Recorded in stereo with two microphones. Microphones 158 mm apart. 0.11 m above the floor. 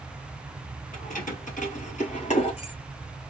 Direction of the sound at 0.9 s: 55° left (ahead or behind).